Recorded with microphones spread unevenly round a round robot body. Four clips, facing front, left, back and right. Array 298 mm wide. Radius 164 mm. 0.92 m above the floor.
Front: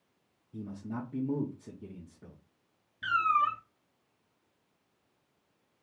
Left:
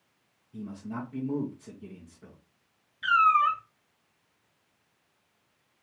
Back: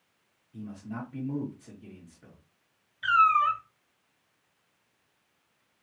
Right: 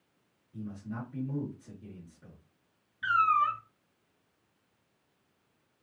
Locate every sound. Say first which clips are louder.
0.5 s a man speaking: left 3 dB, even; 25° left, 1.2 m
3.0 s a cat meowing: left 4 dB, back 5 dB; 10° right, 0.6 m